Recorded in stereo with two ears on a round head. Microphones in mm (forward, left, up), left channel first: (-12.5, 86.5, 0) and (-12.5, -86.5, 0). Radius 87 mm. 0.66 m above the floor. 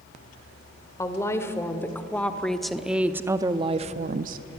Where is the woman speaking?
15° left (ahead or behind), 2 m; by 4.5 s 45° right (ahead or behind), 0.8 m.